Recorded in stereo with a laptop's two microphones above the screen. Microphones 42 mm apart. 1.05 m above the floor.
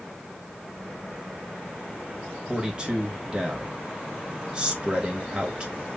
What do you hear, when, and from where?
2.5 s a man speaking: 25° right (ahead or behind), 1.6 m